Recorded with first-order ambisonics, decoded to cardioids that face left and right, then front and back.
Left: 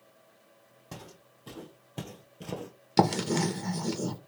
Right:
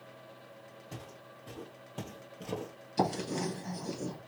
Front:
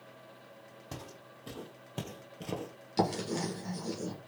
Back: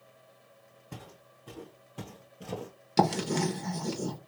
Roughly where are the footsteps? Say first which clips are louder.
Left 3 dB, front 2 dB; ahead left.